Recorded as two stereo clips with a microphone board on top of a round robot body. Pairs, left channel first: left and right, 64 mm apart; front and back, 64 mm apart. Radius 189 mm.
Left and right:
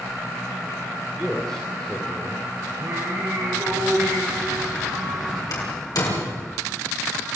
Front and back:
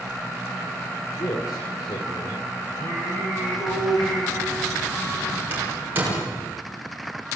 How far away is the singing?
About 6 m.